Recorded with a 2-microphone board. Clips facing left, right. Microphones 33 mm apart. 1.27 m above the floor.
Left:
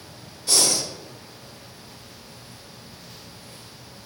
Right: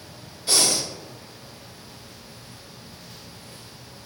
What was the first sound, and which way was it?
Breathing, 30° right (ahead or behind).